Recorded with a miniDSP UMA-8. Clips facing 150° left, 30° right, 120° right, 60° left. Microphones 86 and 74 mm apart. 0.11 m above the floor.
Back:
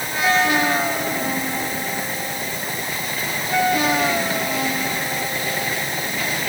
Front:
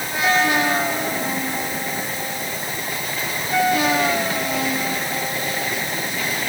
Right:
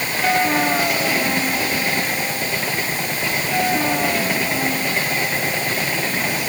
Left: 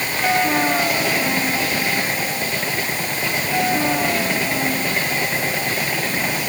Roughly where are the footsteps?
No footsteps in this recording.